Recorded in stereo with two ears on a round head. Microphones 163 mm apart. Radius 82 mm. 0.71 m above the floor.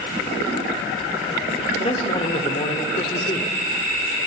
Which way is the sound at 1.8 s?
30° left (ahead or behind).